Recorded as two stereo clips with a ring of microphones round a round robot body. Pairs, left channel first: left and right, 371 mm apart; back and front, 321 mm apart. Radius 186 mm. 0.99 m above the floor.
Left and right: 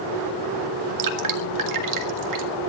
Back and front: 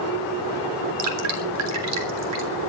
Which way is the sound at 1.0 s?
50° right.